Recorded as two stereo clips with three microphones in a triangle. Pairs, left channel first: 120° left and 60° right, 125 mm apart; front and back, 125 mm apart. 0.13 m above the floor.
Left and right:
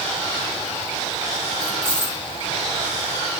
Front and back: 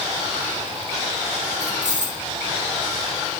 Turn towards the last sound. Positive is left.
turn(degrees=-155)